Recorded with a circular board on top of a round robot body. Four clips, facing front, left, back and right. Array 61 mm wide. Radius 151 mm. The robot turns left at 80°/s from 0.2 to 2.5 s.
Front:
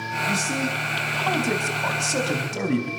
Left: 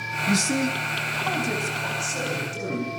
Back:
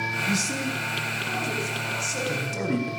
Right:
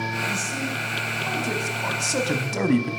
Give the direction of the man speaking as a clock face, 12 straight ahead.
9 o'clock.